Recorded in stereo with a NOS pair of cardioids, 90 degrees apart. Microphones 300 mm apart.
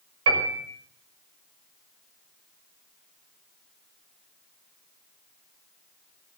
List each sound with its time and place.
0.3 s a piano: 55° right, 6 m